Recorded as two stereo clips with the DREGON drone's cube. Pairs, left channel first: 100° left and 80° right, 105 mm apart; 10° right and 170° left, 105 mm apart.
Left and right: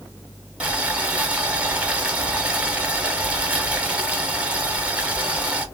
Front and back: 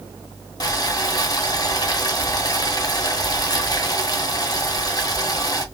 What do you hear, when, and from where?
0.6 s boiling: 15° right, 0.7 m